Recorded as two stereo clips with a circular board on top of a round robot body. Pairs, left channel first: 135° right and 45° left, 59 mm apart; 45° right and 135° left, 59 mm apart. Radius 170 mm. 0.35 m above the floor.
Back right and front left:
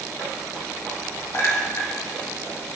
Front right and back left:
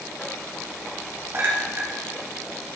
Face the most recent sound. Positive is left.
turn(degrees=180)